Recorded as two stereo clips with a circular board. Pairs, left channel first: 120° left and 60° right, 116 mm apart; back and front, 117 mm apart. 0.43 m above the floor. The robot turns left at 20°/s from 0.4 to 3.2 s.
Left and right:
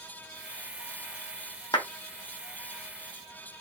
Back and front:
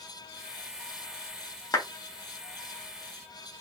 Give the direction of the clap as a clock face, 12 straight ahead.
7 o'clock.